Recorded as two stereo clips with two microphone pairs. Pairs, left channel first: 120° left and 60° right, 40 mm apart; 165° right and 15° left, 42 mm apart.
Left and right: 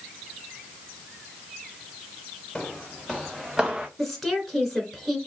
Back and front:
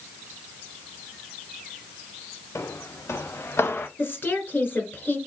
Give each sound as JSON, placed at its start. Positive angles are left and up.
{"t": 2.5, "sound": "footsteps", "azimuth_deg": -160, "distance_m": 1.3}
{"t": 4.0, "sound": "a woman speaking", "azimuth_deg": -145, "distance_m": 2.0}